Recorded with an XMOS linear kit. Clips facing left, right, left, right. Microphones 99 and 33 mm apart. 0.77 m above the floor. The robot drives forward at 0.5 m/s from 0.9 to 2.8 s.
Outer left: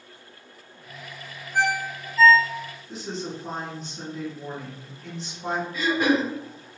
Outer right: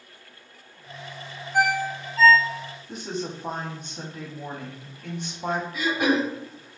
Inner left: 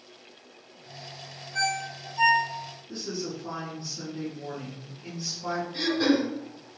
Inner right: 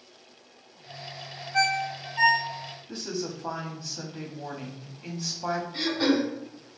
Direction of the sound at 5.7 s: 15° right (ahead or behind).